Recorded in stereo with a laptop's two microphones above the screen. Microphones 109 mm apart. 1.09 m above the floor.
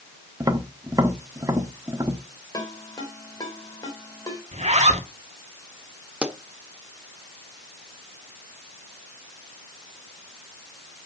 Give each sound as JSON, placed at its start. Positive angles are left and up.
{"t": 0.4, "sound": "tapping", "side_deg": -30, "distance_m": 1.1}
{"t": 2.5, "sound": "a ringtone", "side_deg": 35, "distance_m": 3.5}
{"t": 4.5, "sound": "a zipper", "side_deg": -85, "distance_m": 2.0}
{"t": 6.2, "sound": "a pop", "side_deg": -10, "distance_m": 1.1}